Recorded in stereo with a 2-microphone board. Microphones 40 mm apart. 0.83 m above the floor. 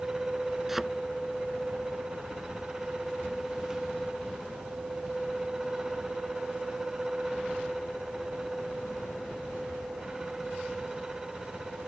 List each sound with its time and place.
0.7 s a thud: 5° right (ahead or behind)